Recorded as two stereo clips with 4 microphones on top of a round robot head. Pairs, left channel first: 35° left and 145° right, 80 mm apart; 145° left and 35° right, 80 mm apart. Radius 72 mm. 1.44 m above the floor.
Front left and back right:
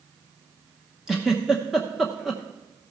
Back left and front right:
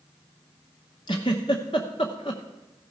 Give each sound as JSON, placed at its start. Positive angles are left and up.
{"t": 1.1, "sound": "a giggle", "azimuth_deg": 130, "distance_m": 0.6}